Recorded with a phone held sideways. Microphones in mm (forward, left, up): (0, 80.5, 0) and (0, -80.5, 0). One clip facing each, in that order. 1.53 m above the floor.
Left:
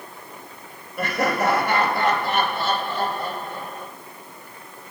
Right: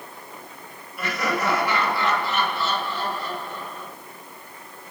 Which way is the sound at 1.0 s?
50° left (ahead or behind).